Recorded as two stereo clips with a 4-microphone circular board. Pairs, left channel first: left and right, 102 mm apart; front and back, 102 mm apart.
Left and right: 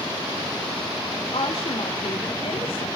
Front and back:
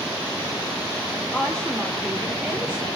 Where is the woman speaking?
75° left, 2 m; by 2.9 s 115° left, 2.5 m.